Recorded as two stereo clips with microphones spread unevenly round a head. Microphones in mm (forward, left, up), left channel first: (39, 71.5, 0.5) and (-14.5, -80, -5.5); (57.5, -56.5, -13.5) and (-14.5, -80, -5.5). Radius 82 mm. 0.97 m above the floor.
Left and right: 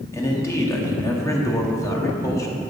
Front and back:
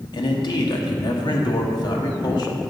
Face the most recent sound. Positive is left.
turn(degrees=0)